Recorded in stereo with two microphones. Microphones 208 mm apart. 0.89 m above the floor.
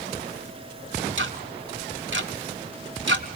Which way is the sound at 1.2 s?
75° right (ahead or behind).